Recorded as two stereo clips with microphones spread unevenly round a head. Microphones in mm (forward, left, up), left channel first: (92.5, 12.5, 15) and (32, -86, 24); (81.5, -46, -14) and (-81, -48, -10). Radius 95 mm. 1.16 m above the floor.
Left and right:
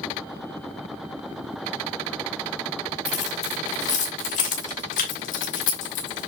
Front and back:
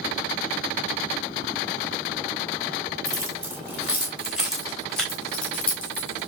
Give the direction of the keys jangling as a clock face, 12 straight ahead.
8 o'clock.